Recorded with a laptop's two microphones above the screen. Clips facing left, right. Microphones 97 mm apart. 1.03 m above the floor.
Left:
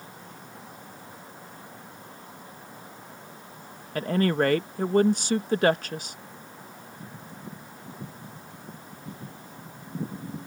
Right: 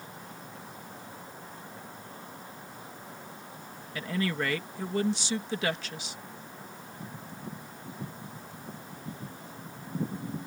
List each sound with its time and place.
4.0 s a woman speaking: 50° left (ahead or behind)